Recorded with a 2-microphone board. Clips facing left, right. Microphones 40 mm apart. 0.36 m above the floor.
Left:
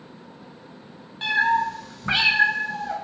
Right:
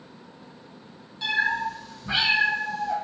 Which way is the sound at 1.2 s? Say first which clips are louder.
Left 4 dB; 40° left (ahead or behind).